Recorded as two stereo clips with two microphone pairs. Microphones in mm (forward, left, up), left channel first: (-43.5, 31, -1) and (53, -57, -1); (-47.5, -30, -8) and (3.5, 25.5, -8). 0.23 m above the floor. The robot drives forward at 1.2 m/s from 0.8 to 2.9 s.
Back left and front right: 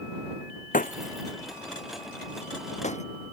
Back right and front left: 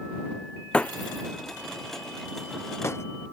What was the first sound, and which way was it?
Breaking glass, 155° left.